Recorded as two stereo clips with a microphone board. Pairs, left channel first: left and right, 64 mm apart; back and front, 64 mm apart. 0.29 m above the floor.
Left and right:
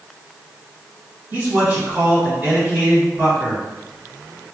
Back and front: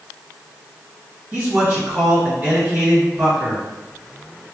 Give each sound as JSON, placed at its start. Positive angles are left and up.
{"t": 1.3, "sound": "a man speaking", "azimuth_deg": -35, "distance_m": 1.9}